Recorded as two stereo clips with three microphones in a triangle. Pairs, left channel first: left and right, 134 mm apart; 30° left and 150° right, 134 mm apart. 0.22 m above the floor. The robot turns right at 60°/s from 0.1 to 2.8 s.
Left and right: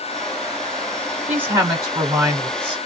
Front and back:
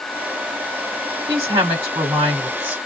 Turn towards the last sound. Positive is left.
turn(degrees=-75)